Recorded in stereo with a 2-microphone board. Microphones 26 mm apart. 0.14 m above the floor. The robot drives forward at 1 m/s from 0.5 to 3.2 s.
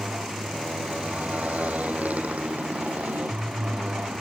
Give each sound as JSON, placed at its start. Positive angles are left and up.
{"t": 0.0, "sound": "a motorcycle", "side_deg": -85}